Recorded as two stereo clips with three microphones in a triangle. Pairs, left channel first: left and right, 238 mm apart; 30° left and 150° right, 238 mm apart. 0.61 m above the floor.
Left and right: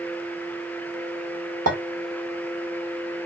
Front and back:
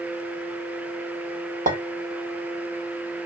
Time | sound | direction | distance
1.7 | a clink | 90° right | 1.0 m